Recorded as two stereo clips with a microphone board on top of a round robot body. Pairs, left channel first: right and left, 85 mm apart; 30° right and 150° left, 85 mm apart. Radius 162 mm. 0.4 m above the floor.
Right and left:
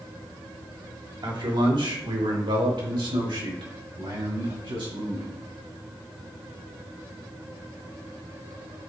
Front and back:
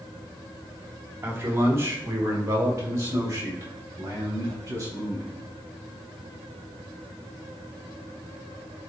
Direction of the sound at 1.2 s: 90° left.